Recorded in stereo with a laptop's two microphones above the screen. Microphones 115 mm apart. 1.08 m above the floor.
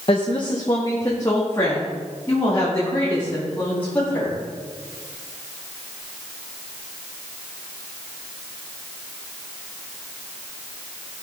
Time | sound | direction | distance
0.1 | a woman speaking | 45° left (ahead or behind) | 0.8 m